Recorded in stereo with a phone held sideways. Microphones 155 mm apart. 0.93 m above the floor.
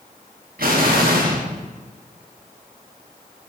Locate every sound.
0.6 s an explosion: 80° right, 1.1 m